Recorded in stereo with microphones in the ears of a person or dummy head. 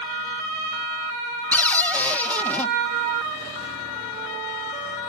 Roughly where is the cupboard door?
Centre.